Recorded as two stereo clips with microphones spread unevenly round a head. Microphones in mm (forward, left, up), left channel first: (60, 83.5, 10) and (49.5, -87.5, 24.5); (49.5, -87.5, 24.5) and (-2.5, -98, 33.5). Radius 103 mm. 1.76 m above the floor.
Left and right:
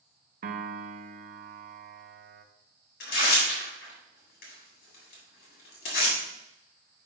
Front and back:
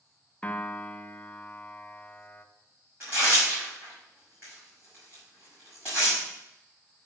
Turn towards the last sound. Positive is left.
turn(degrees=125)